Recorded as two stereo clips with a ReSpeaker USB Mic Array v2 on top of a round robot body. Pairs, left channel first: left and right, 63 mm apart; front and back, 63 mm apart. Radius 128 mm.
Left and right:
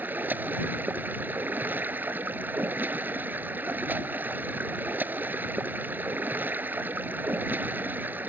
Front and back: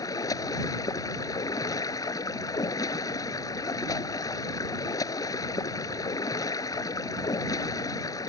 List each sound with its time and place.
0.0 s running water: 25° right